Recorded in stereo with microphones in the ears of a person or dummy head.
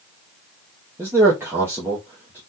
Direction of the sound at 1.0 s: 15° right (ahead or behind).